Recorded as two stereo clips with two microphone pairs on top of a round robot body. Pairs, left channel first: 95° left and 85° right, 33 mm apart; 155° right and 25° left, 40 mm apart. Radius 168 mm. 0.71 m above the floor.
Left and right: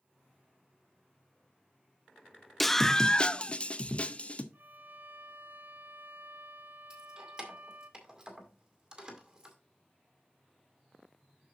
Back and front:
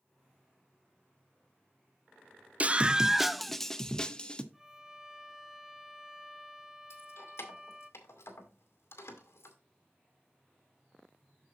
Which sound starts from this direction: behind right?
Keys jangling, at 6.9 s.